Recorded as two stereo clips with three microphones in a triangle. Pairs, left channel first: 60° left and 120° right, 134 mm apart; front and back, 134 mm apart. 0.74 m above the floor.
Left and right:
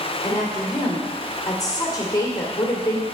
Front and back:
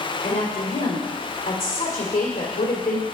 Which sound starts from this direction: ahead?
A woman speaking, at 0.2 s.